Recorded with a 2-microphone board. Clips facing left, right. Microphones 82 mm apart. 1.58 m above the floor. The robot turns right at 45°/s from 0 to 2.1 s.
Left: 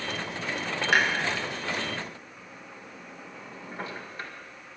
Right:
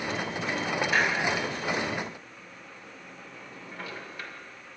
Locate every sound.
0.9 s a clunk: 85° left, 1.9 m; by 4.3 s 35° left (ahead or behind), 1.9 m